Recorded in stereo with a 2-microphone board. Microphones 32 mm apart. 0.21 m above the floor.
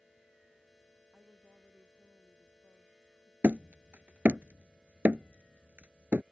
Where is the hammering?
65° right (ahead or behind).